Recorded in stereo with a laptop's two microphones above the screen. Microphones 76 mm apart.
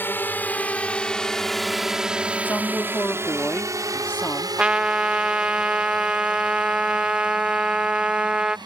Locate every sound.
0.0 s a drone: 30° left (ahead or behind); by 8.7 s 80° right
2.5 s a woman speaking: 25° left (ahead or behind)
4.6 s a trumpet: 15° right (ahead or behind)